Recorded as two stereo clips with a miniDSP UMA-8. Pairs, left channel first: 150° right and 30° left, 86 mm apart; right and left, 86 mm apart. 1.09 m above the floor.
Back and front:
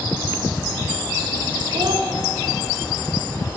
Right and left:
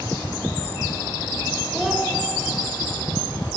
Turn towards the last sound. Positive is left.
turn(degrees=5)